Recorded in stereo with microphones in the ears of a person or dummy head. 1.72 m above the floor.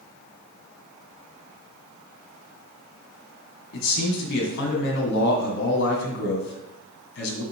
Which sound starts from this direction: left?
A man speaking, at 3.7 s.